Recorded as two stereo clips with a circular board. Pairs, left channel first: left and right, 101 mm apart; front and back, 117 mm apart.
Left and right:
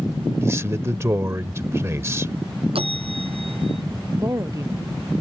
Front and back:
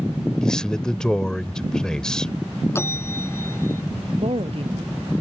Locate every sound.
0.4 s a man speaking: 75° right
2.8 s a bell: 70° right
4.2 s a woman speaking: 150° right